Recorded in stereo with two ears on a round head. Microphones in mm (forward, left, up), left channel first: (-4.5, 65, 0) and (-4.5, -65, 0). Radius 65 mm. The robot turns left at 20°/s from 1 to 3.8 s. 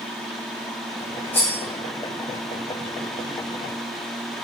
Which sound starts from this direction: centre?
Cutlery clinking, at 1.3 s.